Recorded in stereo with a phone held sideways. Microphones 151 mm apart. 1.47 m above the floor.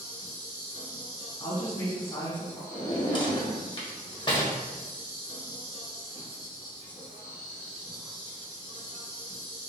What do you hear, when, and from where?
0.0 s an insect: 35° right (ahead or behind), 1.3 m
1.4 s a woman speaking: 25° left (ahead or behind), 1.4 m
2.7 s a drawer: 30° left (ahead or behind), 1.0 m